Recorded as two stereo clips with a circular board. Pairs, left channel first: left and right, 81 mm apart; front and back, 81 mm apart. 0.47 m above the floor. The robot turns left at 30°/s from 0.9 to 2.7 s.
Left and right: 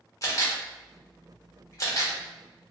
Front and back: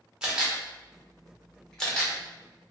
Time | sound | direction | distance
0.2 | a camera shutter | 105° left | 1.1 m